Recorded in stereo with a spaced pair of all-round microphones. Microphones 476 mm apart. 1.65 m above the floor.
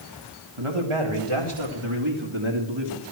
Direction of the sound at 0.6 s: 80° right.